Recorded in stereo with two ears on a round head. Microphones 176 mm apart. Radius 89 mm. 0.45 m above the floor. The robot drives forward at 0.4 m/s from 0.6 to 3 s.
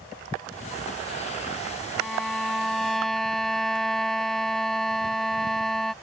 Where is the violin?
Centre (ahead or behind).